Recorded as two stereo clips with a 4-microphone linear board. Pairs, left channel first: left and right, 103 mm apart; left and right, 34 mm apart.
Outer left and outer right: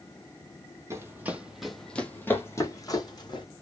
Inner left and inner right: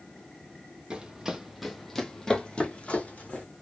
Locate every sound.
0.9 s running footsteps: 25° right (ahead or behind), 0.9 m; by 3.5 s 45° left (ahead or behind), 1.3 m